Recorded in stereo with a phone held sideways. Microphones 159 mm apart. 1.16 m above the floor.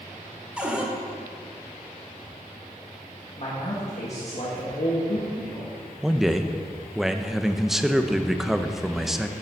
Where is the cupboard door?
5° right (ahead or behind), 1.4 m.